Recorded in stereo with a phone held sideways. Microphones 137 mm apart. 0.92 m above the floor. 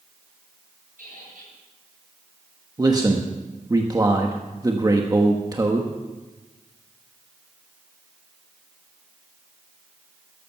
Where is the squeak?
80° right, 8.5 m.